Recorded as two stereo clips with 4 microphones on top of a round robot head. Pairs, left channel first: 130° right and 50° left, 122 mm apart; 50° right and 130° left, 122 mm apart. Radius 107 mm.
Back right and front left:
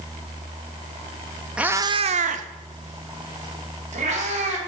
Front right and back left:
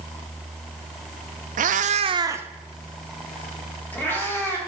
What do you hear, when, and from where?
1.6 s a cat meowing: 130° left, 0.5 m; by 4.6 s 20° left, 2 m